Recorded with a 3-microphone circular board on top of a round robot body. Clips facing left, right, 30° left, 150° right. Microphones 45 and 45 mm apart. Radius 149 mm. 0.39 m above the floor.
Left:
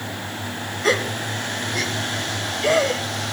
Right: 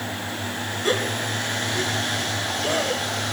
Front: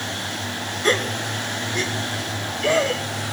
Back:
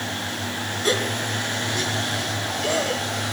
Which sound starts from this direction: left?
A gasp, at 0.8 s.